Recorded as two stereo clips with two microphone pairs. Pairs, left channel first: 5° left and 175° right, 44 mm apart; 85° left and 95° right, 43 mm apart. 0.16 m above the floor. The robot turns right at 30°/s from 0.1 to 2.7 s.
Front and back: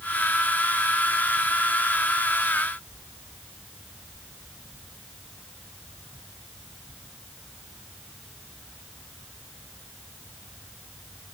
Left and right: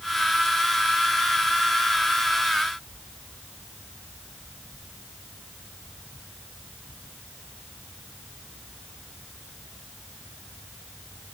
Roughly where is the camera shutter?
I don't hear a camera shutter.